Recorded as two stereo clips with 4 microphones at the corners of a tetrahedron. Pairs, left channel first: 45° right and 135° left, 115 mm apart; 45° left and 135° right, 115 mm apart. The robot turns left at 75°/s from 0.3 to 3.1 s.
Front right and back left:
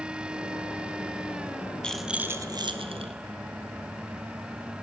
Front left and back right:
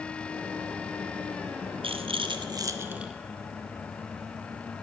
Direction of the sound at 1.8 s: 125° right.